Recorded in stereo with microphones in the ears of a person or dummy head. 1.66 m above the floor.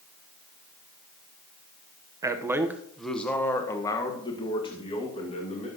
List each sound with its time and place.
2.2 s a man speaking: 25° right (ahead or behind), 1.1 m; by 5.7 s 35° left (ahead or behind), 3 m